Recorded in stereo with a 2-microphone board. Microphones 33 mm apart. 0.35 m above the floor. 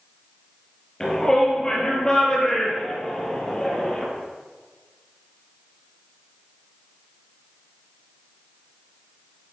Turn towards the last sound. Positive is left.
turn(degrees=25)  # may be behind; listen again after turning